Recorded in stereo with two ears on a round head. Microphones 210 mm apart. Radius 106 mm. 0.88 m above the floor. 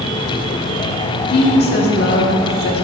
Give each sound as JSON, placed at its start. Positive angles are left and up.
{"t": 1.3, "sound": "a woman speaking", "side_deg": 50, "distance_m": 1.5}